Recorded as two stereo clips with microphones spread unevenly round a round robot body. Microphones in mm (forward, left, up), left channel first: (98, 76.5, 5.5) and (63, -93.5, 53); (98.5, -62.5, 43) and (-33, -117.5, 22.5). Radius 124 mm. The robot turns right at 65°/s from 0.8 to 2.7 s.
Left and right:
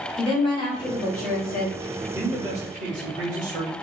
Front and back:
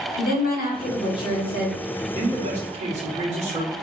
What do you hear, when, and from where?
0.2 s a woman speaking: 25° left, 2.0 m; by 1.8 s 90° left, 2.0 m
2.1 s a man speaking: 165° left, 1.8 m; by 3.7 s 160° right, 1.8 m